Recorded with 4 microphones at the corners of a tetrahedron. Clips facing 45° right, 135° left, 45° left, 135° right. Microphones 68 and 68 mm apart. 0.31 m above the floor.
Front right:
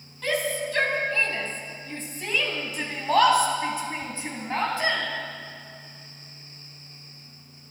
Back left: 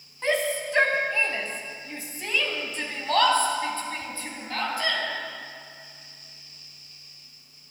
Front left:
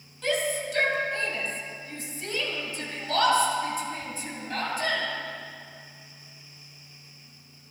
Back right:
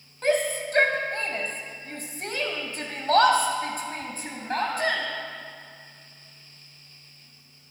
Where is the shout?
170° right, 2.5 m; by 5.0 s 100° right, 3 m.